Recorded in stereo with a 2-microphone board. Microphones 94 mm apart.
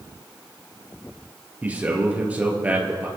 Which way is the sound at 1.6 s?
20° right (ahead or behind).